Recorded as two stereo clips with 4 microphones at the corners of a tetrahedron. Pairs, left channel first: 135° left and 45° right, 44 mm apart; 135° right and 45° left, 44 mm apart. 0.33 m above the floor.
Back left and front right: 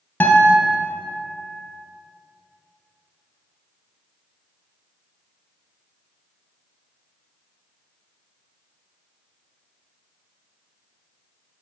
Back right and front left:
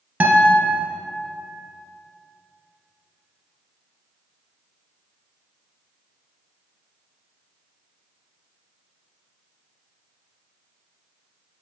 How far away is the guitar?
About 1.4 m.